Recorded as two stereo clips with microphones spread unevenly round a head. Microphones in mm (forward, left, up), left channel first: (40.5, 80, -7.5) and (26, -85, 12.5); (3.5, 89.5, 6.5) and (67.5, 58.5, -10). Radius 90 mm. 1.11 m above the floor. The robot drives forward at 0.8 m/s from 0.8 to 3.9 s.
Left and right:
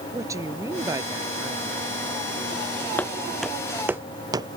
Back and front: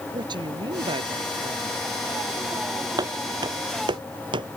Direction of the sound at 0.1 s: 25° right.